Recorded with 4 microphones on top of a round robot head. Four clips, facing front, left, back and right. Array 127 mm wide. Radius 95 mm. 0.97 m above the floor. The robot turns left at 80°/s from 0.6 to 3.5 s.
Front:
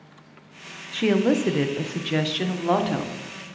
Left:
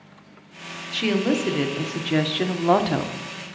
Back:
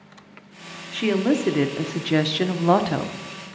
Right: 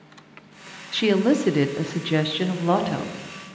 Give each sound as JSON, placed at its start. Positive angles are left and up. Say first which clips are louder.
{"t": 0.9, "sound": "a woman speaking", "louder": "right 3 dB, even", "azimuth_deg": -60, "distance_m": 0.6}